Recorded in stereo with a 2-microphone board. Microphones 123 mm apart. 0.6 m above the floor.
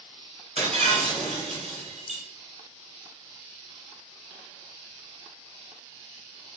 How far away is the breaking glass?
About 2 m.